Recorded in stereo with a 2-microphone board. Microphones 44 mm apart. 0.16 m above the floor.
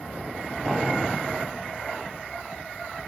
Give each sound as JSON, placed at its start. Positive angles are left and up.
{"t": 0.7, "sound": "boiling", "side_deg": -10, "distance_m": 1.1}